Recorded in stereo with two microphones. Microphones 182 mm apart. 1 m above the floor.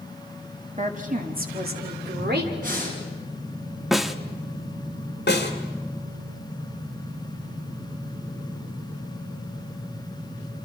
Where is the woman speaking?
40° right (ahead or behind), 2.0 m; by 2.5 s 70° right (ahead or behind), 3.5 m.